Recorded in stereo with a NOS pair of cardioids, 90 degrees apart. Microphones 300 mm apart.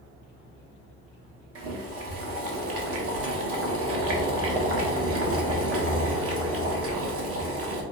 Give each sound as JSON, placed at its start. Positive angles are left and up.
{"t": 1.6, "sound": "boiling", "azimuth_deg": -55, "distance_m": 1.1}